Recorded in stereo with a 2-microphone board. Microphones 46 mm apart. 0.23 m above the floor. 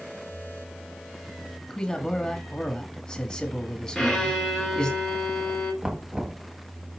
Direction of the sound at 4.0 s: 15° left (ahead or behind).